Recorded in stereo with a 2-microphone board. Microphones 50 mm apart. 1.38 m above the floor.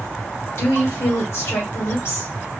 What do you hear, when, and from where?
0.6 s a woman speaking: 65° left (ahead or behind), 1.7 m